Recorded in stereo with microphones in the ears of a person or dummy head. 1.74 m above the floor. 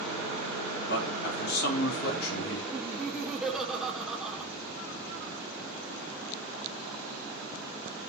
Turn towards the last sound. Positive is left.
turn(degrees=0)  # may be behind; listen again after turning